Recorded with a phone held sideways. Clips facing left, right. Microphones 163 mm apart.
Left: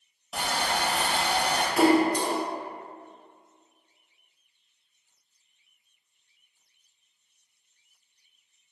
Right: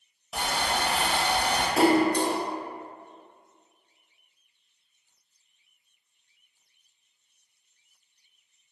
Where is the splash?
30° right (ahead or behind), 0.6 m.